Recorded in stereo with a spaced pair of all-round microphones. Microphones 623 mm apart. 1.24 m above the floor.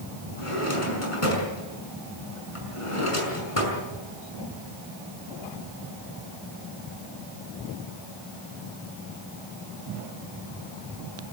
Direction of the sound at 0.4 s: 60° left (ahead or behind).